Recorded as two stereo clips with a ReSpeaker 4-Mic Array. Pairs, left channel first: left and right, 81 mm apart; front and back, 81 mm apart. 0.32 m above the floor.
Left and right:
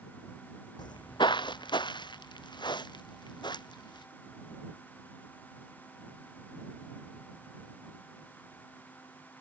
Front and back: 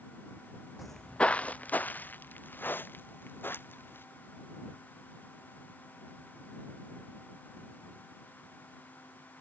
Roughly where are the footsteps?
Left.